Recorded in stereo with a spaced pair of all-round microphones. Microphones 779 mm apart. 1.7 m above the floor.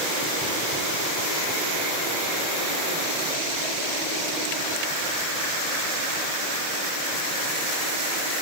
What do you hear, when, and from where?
Only background noise.